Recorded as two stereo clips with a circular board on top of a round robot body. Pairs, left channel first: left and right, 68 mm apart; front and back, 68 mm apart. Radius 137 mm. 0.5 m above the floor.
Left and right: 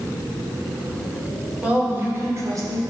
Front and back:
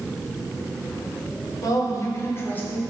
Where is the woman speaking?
15° right, 2.5 m; by 2.8 s 65° right, 2.5 m.